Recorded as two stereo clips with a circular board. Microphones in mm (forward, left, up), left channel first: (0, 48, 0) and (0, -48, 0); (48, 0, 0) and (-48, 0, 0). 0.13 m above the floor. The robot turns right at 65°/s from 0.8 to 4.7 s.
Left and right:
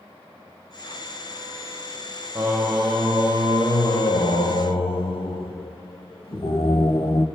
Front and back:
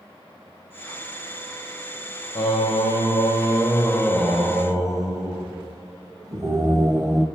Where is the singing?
30° right, 1.4 m; by 7.2 s 120° left, 1.4 m.